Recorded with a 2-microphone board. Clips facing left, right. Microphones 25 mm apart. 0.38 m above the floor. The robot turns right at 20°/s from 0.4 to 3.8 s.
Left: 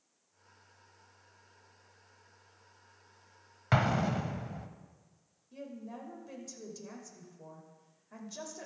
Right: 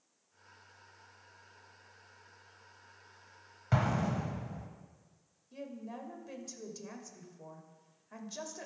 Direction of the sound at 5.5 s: 20° right (ahead or behind).